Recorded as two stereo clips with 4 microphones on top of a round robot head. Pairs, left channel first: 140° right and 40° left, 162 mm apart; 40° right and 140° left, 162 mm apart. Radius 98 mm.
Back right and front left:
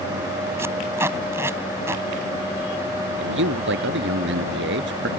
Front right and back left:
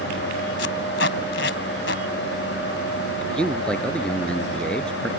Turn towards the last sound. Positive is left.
turn(degrees=45)